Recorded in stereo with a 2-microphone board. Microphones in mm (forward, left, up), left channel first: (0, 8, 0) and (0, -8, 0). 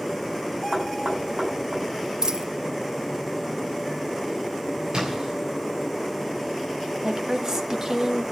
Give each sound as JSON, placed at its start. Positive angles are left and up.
{"t": 0.7, "sound": "knocking", "side_deg": -75, "distance_m": 6.5}
{"t": 2.2, "sound": "a dropped coin", "side_deg": -55, "distance_m": 0.5}
{"t": 4.9, "sound": "a splash", "side_deg": -60, "distance_m": 7.5}
{"t": 7.0, "sound": "a woman speaking", "side_deg": -35, "distance_m": 1.8}